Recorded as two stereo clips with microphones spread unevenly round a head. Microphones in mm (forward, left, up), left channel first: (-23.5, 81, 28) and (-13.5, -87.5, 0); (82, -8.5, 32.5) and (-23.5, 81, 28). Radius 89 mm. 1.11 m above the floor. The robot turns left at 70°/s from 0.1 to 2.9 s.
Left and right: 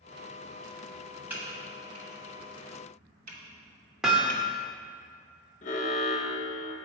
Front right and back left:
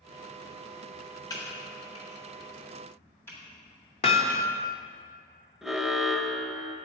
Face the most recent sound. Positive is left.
turn(degrees=50)